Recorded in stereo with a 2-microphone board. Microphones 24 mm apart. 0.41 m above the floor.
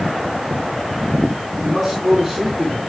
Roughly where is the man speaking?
Centre.